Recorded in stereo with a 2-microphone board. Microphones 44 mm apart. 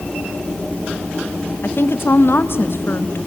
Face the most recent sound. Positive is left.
turn(degrees=65)  # may be behind; listen again after turning